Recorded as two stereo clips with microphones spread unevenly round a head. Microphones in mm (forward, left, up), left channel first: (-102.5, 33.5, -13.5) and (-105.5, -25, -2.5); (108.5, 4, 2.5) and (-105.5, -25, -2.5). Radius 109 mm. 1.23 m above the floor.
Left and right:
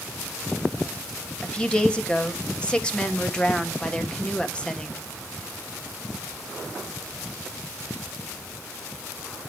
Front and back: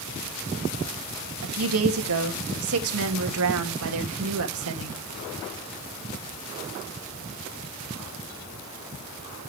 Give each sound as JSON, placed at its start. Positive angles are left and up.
{"t": 1.4, "sound": "a woman speaking", "azimuth_deg": 160, "distance_m": 1.8}